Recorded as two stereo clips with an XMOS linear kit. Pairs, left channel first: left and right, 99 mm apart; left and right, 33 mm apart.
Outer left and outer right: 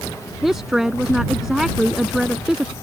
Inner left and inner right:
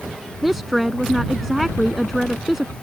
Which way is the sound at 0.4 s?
5° right (ahead or behind).